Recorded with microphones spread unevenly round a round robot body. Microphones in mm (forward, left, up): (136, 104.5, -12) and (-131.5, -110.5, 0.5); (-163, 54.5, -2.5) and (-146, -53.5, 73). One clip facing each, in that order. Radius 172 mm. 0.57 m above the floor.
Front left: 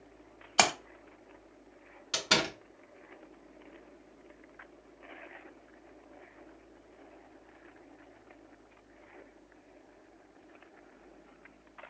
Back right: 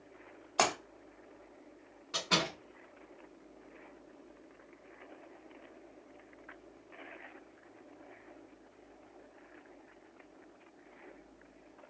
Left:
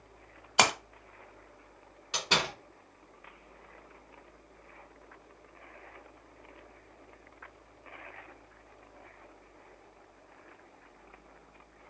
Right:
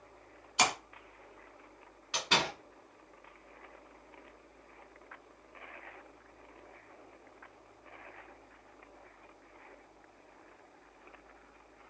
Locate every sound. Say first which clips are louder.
0.6 s a splash: front left 2 dB, left 4 dB; 95° left, 0.9 m
2.1 s a door slam: front left 3 dB, even; 55° left, 1.5 m